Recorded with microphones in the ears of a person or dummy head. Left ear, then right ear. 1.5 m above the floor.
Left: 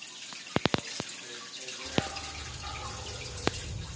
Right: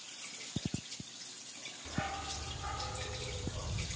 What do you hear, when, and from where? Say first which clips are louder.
1.9 s a dog barking: left 5 dB; 10° right (ahead or behind), 1.3 m; by 3.9 s 15° right (ahead or behind), 2 m